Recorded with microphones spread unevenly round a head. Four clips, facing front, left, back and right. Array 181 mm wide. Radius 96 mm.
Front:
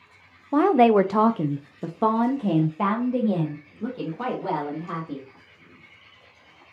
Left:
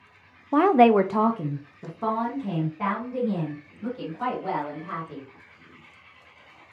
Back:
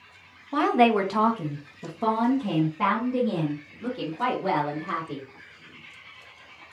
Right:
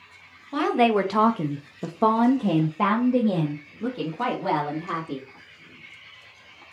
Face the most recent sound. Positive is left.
turn(degrees=-75)